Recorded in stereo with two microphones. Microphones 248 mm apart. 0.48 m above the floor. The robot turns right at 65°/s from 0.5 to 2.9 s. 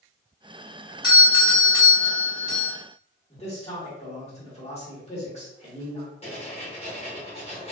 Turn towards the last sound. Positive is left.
turn(degrees=25)  # may be behind; listen again after turning